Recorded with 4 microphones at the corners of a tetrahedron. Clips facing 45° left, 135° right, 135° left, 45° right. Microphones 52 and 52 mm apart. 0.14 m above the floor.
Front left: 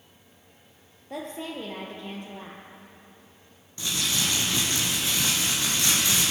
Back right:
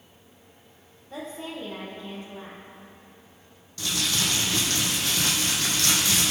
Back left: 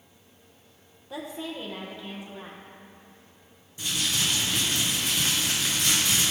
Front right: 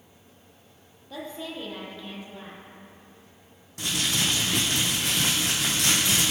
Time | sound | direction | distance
1.1 | a woman speaking | 55° left | 3 m
3.8 | crumpling | 25° right | 4 m